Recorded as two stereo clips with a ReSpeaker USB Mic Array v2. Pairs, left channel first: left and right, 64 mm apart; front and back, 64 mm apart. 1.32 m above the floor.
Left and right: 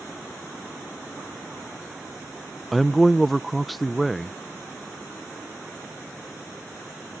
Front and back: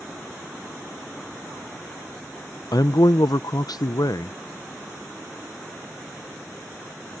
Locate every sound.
2.7 s a man speaking: straight ahead